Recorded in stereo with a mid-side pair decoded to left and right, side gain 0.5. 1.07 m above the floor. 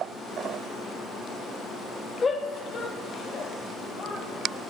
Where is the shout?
30° left, 1.2 m; by 4.2 s 50° left, 2.5 m.